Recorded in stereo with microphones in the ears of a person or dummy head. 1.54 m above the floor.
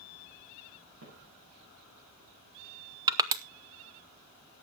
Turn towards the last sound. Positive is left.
turn(degrees=-20)  # may be behind; listen again after turning